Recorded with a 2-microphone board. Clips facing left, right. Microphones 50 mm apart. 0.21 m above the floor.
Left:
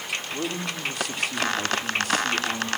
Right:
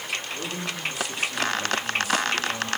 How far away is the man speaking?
About 8 m.